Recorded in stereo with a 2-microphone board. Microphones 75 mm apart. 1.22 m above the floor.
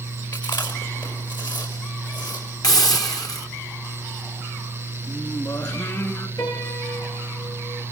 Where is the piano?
70° left (ahead or behind), 10 m.